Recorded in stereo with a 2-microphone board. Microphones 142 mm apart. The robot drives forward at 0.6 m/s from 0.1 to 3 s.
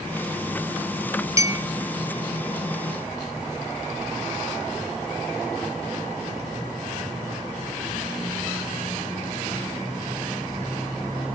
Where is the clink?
20° right (ahead or behind), 0.7 m.